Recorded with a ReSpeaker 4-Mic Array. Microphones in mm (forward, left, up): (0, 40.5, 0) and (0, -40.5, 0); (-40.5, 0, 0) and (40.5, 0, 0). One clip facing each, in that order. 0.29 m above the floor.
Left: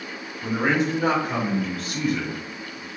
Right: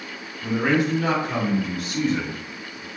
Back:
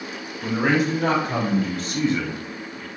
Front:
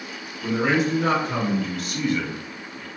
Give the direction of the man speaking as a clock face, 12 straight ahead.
7 o'clock.